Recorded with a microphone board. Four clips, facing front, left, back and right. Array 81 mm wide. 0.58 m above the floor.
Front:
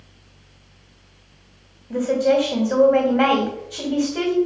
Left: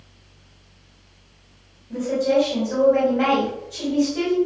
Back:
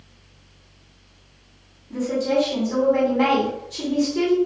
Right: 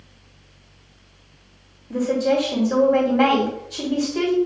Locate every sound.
1.9 s a woman speaking: 15° right, 3.5 m